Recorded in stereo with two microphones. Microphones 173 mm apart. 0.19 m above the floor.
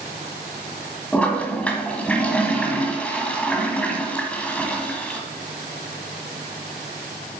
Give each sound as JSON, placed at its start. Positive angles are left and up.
{"t": 1.1, "sound": "a toilet flushing", "side_deg": 10, "distance_m": 1.4}